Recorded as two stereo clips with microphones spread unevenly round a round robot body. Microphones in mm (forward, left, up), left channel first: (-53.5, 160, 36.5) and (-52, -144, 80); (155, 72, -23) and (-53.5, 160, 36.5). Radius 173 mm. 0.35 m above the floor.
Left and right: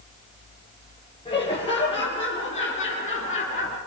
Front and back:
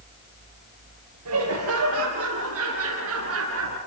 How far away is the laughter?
About 7 m.